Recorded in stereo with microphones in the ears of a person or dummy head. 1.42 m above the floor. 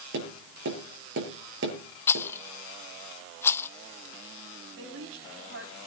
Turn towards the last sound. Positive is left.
turn(degrees=-85)